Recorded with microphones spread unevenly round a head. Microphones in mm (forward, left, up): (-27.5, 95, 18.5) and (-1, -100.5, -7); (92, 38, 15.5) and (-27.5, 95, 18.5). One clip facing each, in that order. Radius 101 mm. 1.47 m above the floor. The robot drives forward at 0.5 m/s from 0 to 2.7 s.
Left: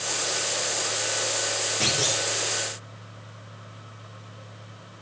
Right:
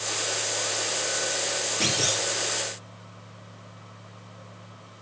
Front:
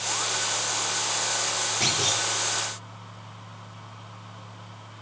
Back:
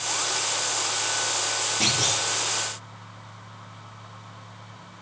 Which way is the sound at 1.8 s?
165° right.